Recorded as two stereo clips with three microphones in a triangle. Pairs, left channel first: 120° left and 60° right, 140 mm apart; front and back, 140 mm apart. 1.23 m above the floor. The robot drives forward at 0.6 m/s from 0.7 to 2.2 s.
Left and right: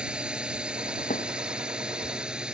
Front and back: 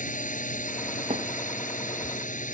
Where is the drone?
25° left.